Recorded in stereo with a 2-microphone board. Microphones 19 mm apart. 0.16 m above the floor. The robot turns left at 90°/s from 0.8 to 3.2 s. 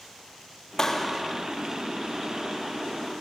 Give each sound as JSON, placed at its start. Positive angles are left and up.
{"t": 0.8, "sound": "a clap", "azimuth_deg": 25, "distance_m": 2.5}